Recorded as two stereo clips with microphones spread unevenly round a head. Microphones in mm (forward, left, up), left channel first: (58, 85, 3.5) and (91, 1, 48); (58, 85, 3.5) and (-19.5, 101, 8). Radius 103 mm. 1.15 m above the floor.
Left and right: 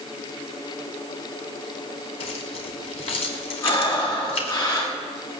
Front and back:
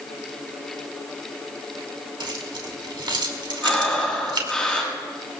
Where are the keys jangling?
150° left, 3 m.